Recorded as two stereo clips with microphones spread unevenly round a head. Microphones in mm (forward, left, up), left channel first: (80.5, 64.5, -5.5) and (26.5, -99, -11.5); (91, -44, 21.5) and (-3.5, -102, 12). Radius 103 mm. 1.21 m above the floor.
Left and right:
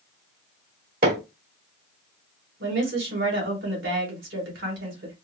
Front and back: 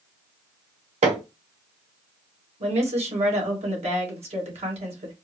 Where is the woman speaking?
135° right, 2 m.